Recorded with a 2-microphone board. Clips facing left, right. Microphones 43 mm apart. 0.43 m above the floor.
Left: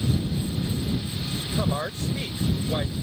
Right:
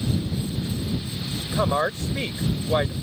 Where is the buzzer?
No buzzer in this recording.